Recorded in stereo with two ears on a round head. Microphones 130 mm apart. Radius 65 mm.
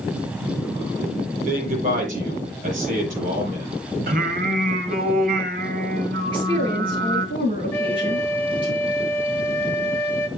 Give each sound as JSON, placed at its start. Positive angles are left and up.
{"t": 1.4, "sound": "a man speaking", "side_deg": -50, "distance_m": 9.0}
{"t": 4.1, "sound": "singing", "side_deg": -65, "distance_m": 2.5}
{"t": 6.3, "sound": "a woman speaking", "side_deg": -35, "distance_m": 7.5}
{"t": 7.7, "sound": "a flute", "side_deg": 15, "distance_m": 1.0}